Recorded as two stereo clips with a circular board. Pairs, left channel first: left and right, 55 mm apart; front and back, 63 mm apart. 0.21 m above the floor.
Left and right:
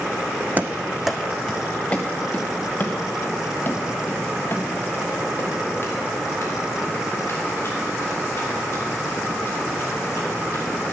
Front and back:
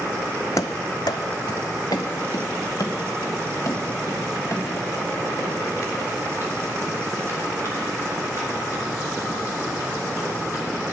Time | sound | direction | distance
0.6 | running footsteps | 30° right | 0.5 m